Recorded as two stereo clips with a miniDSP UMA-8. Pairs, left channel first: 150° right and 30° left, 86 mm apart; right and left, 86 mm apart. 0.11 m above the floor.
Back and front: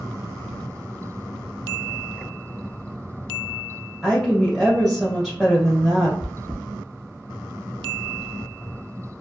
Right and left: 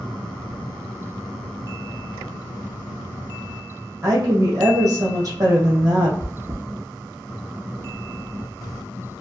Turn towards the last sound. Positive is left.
turn(degrees=115)